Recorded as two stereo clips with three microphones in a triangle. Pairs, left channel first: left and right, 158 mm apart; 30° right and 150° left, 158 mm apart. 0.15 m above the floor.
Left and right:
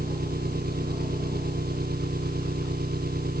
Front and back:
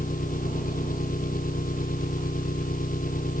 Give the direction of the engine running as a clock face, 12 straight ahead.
2 o'clock.